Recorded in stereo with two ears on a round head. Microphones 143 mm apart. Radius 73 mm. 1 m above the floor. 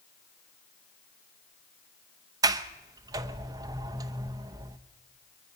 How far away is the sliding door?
About 0.7 m.